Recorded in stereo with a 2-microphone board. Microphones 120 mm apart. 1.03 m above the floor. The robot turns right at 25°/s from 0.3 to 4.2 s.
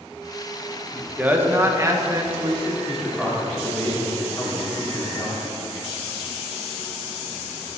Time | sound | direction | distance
0.9 | a man speaking | 170° right | 0.9 m
2.9 | a man speaking | 5° right | 2.5 m